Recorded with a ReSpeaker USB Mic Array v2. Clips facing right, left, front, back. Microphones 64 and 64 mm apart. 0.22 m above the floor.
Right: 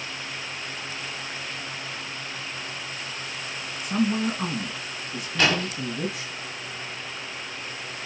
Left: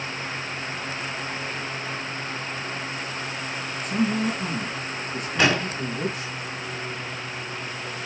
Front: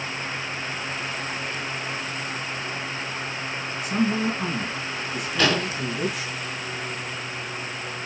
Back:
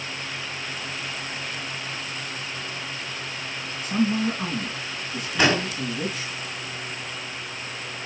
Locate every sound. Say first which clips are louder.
3.8 s a woman speaking: even, back 1 dB; 80° right, 3 m
5.4 s an explosion: left 2 dB, back 1 dB; 135° left, 1.5 m